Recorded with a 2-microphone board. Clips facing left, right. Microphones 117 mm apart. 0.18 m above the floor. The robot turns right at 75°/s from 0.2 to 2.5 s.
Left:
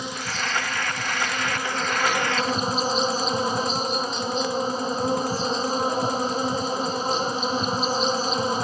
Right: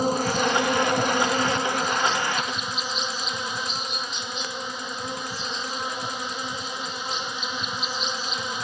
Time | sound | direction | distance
0.0 | an insect | 130° right | ?